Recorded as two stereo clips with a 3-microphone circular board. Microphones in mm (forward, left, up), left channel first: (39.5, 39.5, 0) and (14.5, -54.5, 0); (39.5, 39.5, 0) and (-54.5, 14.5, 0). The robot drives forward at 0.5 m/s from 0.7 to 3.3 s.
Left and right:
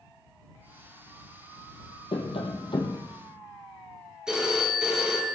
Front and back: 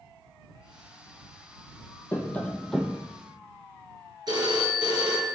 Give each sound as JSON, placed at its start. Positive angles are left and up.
{"t": 2.1, "sound": "tapping", "azimuth_deg": 85, "distance_m": 0.9}
{"t": 4.3, "sound": "a phone ringing", "azimuth_deg": 175, "distance_m": 1.5}